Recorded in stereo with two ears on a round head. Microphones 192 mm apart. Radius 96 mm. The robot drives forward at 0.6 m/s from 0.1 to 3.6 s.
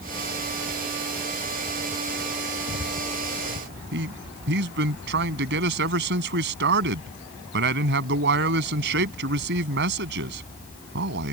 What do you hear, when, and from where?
3.9 s a man speaking: 55° right (ahead or behind)